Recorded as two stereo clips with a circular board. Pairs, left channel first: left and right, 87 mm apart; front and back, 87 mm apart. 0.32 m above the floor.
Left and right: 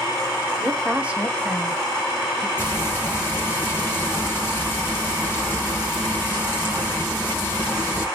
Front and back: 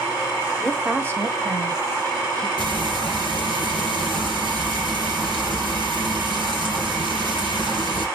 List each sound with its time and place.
0.6 s a woman speaking: 65° right, 1.2 m; by 2.5 s straight behind, 3 m
2.6 s frying: 155° left, 3.5 m